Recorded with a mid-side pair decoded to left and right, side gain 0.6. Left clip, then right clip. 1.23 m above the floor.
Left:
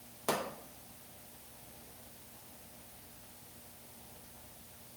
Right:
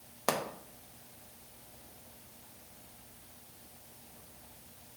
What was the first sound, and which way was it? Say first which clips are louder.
A pop: right 2 dB; 45° right.